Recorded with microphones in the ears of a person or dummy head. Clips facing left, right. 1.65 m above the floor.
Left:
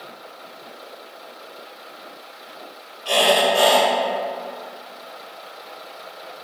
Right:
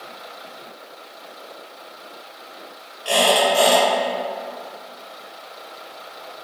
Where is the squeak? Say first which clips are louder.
Even; 15° right (ahead or behind), 1.1 m.